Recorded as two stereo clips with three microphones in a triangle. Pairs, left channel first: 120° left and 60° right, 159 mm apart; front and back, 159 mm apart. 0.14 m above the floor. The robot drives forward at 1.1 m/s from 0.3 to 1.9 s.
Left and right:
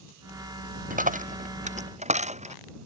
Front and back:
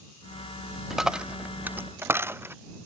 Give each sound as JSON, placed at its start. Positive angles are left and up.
{"t": 0.9, "sound": "a dropped coin", "azimuth_deg": -90}